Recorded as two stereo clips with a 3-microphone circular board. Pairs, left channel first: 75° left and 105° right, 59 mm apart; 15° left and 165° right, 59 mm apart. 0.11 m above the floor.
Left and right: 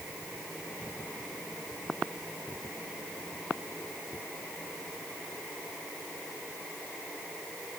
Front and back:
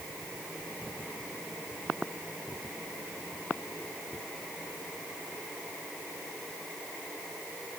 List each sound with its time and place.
Only background noise.